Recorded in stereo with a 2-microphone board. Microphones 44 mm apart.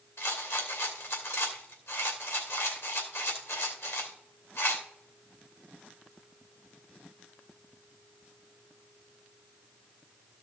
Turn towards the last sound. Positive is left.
turn(degrees=75)  # may be behind; listen again after turning